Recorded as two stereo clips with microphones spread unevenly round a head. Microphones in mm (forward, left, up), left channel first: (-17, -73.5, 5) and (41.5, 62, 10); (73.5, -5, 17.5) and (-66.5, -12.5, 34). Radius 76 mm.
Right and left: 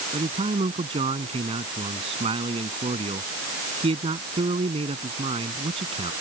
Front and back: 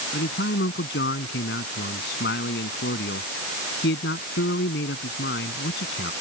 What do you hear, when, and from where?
0.1 s a man speaking: 15° left